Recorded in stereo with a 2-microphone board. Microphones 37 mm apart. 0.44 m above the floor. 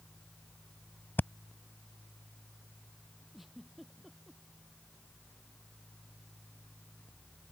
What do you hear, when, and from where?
1.2 s breathing: 70° left (ahead or behind)
3.3 s a giggle: 5° right (ahead or behind)